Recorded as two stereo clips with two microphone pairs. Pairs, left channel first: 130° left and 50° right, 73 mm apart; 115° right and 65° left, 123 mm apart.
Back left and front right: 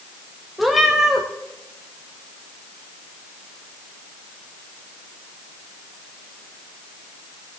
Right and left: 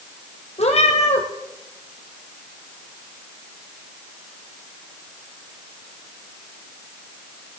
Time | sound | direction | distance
0.6 | a cat meowing | 140° right | 2 m